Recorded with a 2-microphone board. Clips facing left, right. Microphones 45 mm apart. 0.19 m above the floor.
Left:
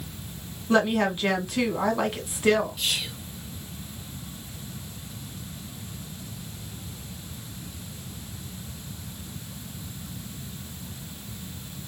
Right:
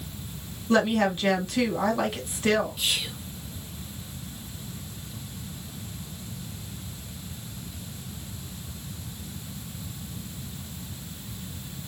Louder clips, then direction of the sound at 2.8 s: Even; 10° right (ahead or behind).